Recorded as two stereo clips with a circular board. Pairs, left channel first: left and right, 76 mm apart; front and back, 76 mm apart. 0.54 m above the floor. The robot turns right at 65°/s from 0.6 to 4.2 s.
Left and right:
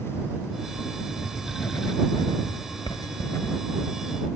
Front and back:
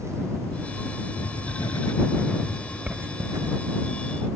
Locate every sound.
1.1 s writing: 10° right; by 3.6 s 155° left